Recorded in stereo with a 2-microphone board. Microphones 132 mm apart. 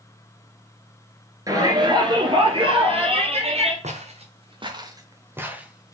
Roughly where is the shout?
Right.